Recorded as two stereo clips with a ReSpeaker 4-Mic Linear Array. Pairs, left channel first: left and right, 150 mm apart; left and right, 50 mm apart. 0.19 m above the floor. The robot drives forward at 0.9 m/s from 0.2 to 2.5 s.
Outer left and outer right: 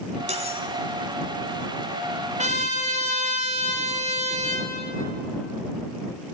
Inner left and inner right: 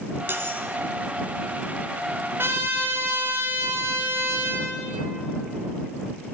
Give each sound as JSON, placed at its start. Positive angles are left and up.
{"t": 0.3, "sound": "cutlery clinking", "side_deg": -50, "distance_m": 1.1}
{"t": 2.4, "sound": "a trumpet", "side_deg": -55, "distance_m": 1.8}